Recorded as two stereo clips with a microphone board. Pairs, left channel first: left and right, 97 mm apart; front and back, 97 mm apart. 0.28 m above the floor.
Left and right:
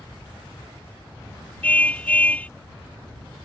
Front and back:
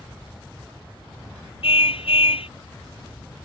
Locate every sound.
1.6 s a car horn: 15° left